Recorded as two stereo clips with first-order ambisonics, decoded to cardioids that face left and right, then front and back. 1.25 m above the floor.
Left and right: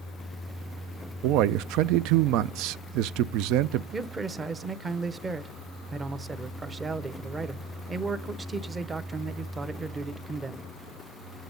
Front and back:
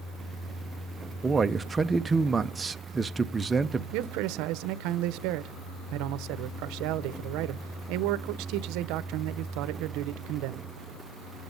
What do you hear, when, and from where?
1.2 s a man speaking: 100° right, 0.5 m
3.9 s a man speaking: 165° right, 0.7 m